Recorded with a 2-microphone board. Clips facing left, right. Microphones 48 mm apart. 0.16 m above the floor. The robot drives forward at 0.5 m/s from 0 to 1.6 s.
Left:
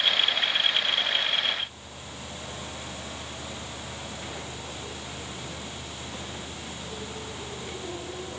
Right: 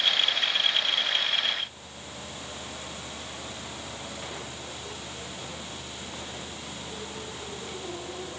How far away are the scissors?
I don't hear scissors.